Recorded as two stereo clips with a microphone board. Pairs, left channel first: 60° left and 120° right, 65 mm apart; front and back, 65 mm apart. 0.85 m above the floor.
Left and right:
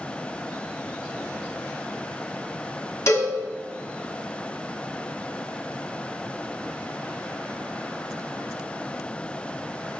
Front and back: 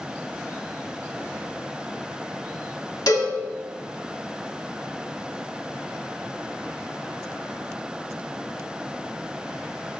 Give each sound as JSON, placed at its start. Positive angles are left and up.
{"t": 3.1, "sound": "a cowbell", "azimuth_deg": 20, "distance_m": 1.5}